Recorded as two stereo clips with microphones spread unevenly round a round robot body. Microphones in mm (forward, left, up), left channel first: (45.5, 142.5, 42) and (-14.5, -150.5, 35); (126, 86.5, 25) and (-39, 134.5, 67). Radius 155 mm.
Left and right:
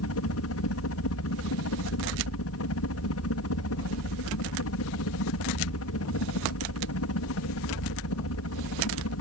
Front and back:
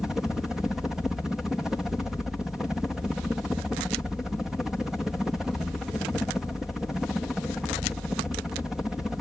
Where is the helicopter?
65° left.